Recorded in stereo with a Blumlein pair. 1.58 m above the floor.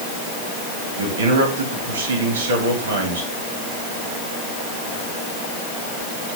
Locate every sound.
1.0 s a man speaking: 70° right, 4.5 m